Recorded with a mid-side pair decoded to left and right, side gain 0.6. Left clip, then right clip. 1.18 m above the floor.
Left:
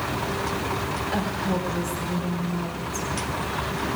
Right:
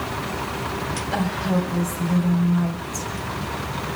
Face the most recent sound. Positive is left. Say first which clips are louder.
# right 4 dB
turn(degrees=-5)